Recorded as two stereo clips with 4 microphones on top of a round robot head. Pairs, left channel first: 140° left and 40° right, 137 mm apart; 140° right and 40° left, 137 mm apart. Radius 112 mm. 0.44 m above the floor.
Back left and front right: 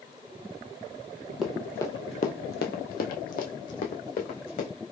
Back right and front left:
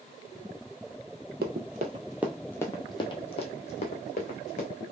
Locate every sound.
1.4 s running footsteps: 50° left, 0.7 m; by 4.7 s straight behind, 1.8 m